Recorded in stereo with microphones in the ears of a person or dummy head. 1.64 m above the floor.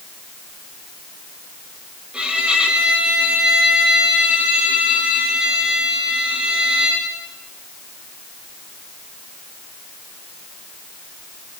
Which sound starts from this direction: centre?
A violin, at 2.1 s.